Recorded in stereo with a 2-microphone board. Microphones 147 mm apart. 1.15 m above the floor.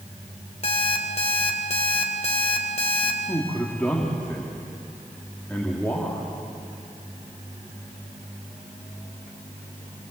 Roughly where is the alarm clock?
Left.